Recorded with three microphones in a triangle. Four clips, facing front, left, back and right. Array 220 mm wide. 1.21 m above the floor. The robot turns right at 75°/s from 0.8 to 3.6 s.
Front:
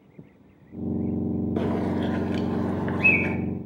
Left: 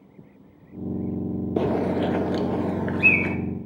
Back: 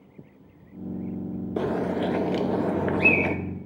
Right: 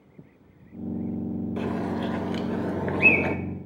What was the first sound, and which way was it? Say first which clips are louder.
A bird: left 8 dB, back 3 dB; 85° left.